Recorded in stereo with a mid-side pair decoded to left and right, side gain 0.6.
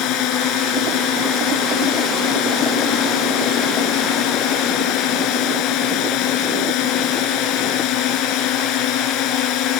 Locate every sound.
0.0 s a drone: 70° left